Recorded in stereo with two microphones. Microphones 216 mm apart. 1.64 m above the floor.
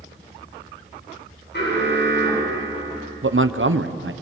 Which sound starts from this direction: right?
A man speaking, at 3.2 s.